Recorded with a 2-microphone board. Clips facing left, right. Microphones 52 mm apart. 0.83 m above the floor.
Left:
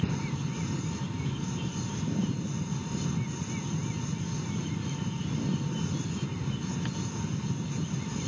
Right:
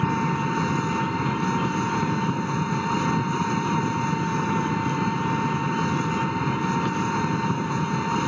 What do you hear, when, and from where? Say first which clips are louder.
0.0 s an engine running: right 10 dB; 80° right